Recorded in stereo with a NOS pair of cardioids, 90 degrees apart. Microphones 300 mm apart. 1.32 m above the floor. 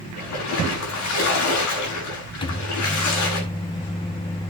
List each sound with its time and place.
0.2 s a splash: 60° left, 9 m
2.4 s a microwave: 15° left, 1.6 m